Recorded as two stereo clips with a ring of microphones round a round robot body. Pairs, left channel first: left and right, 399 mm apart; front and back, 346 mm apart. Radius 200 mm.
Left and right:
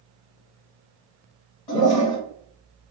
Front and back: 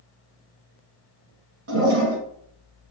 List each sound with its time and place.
1.7 s a toilet flushing: 125° left, 1.3 m